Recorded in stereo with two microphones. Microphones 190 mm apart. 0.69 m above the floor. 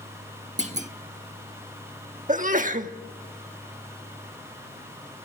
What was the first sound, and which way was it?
A clunk, 40° right (ahead or behind).